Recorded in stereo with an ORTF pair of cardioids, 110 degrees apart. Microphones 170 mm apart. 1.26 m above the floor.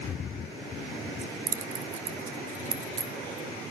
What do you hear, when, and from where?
1.2 s keys jangling: 50° right, 0.8 m